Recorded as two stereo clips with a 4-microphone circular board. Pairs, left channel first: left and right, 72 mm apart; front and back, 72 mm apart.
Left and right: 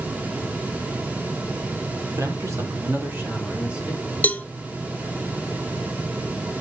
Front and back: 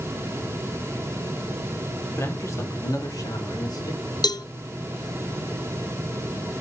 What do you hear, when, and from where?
2.2 s a man speaking: 50° right, 2.5 m; by 4.1 s 10° right, 3.5 m
4.2 s a cowbell: 20° left, 0.6 m